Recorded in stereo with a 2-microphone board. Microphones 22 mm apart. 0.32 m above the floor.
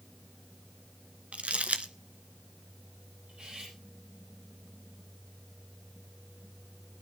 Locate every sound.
1.3 s crumpling: 80° right, 1.1 m
3.3 s cutlery clinking: 50° right (ahead or behind), 7 m